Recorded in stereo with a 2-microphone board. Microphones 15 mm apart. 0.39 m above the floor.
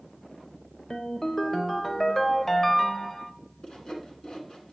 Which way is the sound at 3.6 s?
60° left (ahead or behind).